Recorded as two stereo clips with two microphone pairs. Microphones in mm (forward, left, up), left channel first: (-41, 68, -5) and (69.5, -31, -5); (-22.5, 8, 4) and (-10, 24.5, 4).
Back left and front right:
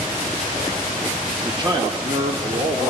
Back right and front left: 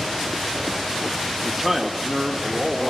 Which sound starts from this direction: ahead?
A man speaking, at 1.4 s.